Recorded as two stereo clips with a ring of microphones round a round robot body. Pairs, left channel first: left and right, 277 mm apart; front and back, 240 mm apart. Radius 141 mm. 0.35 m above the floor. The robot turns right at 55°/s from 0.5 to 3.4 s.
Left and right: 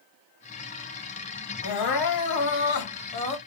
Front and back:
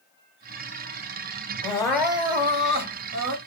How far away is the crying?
About 1.0 m.